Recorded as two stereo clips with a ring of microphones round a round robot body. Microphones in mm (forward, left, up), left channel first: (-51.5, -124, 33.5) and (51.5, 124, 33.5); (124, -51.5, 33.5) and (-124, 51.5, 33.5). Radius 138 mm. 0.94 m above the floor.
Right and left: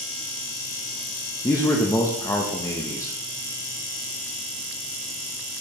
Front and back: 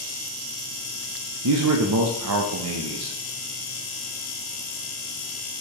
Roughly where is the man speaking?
Behind.